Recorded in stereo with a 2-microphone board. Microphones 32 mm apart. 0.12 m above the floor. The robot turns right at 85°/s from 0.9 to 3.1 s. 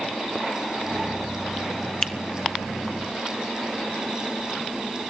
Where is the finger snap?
25° left (ahead or behind), 0.9 m.